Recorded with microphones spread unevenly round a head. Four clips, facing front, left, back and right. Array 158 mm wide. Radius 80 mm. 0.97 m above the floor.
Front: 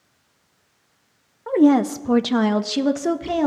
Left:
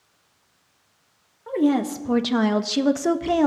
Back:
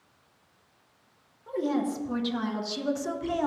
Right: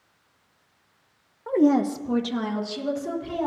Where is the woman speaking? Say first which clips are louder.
Right 1 dB, front 13 dB; 25° right, 0.7 m; by 3.5 s 60° left, 1.1 m.